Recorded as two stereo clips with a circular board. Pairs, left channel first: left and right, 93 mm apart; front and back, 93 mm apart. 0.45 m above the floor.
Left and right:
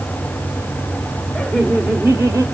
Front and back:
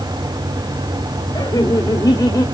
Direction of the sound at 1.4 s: 5° left.